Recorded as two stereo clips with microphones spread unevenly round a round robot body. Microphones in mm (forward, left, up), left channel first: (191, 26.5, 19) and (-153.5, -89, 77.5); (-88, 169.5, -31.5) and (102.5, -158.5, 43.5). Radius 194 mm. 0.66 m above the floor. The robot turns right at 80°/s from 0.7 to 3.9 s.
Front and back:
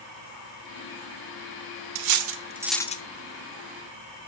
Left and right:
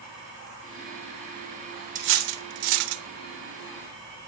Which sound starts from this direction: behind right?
Cutlery clinking, at 1.9 s.